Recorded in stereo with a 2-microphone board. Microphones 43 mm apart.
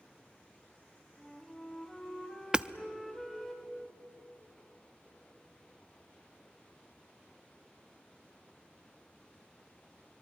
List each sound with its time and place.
1.2 s a flute: 15° left (ahead or behind), 2.5 m
2.5 s hammering: 20° right (ahead or behind), 0.6 m